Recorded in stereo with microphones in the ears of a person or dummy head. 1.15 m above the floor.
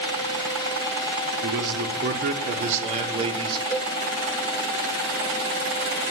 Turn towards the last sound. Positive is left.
turn(degrees=10)  # may be behind; listen again after turning